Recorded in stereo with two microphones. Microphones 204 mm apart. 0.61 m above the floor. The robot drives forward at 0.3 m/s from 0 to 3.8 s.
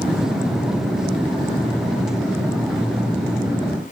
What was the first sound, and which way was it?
Only background noise.